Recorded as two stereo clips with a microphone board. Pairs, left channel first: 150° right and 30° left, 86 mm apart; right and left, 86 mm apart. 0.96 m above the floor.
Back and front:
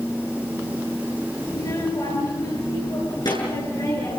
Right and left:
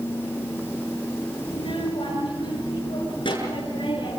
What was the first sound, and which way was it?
A child speaking, 105° right.